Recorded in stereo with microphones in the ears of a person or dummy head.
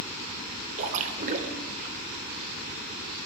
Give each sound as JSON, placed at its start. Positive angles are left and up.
{"t": 0.8, "sound": "a splash", "side_deg": -45, "distance_m": 1.2}